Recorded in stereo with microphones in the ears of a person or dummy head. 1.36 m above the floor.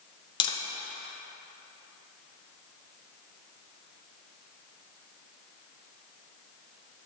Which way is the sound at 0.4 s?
30° left (ahead or behind).